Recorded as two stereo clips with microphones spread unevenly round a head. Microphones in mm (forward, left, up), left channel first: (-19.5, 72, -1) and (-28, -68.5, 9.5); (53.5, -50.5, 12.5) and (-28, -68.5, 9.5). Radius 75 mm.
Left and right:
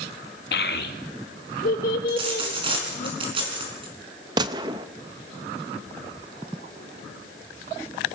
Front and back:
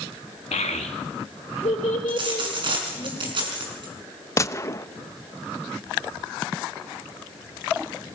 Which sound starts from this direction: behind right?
A dropped coin, at 2.1 s.